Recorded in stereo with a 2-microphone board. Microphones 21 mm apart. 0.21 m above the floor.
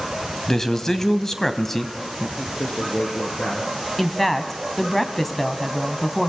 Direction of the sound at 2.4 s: 70° left (ahead or behind).